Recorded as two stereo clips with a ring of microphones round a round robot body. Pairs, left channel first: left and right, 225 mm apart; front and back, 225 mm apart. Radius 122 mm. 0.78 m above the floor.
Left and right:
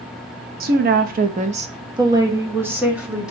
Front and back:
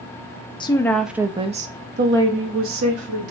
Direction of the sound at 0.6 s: 60° right.